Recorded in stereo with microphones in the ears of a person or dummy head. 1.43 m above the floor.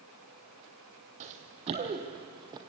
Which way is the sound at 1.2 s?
35° right (ahead or behind).